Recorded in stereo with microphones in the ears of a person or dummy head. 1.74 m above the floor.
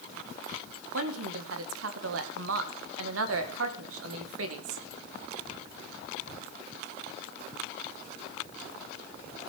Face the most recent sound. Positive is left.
turn(degrees=-80)